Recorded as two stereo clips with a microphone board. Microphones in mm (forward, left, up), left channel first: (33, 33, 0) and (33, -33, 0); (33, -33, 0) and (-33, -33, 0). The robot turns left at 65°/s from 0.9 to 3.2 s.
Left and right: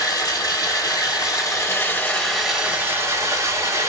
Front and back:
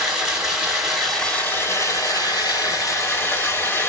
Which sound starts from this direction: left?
Running water, at 0.0 s.